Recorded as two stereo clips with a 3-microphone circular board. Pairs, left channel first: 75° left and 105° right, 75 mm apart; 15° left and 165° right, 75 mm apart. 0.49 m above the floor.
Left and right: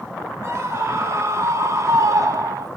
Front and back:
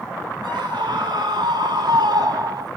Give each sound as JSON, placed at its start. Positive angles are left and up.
{"t": 0.4, "sound": "a scream", "azimuth_deg": -155, "distance_m": 5.5}